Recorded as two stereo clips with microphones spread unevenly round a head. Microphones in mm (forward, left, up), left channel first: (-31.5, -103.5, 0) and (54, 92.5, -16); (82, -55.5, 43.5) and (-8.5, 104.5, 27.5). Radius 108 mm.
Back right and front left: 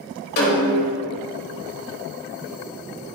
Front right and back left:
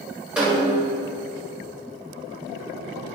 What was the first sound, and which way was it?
A snare drum, 155° right.